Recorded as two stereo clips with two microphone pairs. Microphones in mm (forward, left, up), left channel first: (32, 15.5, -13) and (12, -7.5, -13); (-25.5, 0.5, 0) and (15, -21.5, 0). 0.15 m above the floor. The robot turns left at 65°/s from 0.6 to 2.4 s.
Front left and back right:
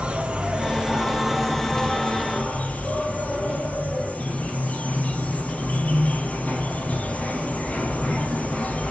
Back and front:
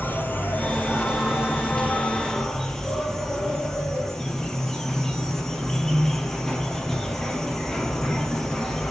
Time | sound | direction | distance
0.0 | an insect | 170° right | 1.8 m